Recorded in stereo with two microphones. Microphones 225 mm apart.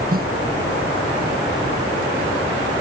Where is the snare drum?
40° right (ahead or behind).